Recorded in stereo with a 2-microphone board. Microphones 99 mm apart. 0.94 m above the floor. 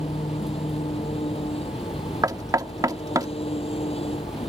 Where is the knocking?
35° right (ahead or behind).